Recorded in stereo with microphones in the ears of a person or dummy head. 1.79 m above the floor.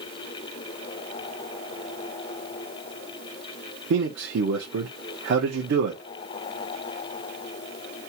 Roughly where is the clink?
No clink in this recording.